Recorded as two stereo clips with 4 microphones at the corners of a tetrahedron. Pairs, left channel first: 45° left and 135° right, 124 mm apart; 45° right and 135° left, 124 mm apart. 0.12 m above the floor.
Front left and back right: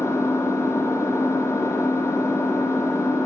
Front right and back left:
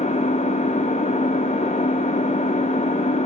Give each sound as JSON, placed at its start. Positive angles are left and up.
{"t": 0.0, "sound": "an engine running", "azimuth_deg": -25, "distance_m": 2.5}